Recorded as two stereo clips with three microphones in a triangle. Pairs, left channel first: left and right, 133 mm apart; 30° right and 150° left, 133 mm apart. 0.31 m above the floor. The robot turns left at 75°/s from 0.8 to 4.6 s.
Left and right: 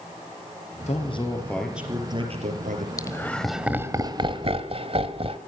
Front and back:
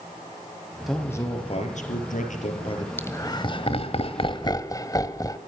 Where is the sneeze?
I don't hear a sneeze.